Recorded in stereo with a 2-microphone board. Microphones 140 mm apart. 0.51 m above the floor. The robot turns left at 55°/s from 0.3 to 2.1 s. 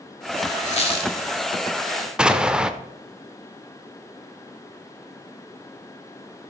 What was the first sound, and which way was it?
A squeak, 60° left (ahead or behind).